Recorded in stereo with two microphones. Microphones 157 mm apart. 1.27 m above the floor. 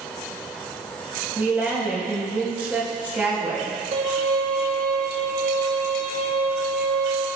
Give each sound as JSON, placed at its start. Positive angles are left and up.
{"t": 1.4, "sound": "a woman speaking", "side_deg": -10, "distance_m": 4.5}
{"t": 3.9, "sound": "a violin", "side_deg": -70, "distance_m": 5.5}